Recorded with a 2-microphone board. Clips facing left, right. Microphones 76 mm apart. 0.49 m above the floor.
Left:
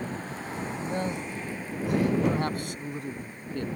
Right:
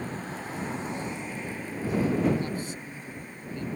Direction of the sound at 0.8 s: 65° left (ahead or behind).